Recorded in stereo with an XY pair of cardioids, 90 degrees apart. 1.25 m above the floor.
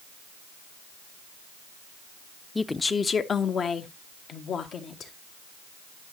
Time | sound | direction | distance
2.5 | a woman speaking | 15° left | 0.6 m